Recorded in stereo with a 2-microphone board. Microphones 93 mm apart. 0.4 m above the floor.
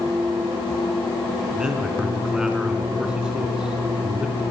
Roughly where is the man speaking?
Centre.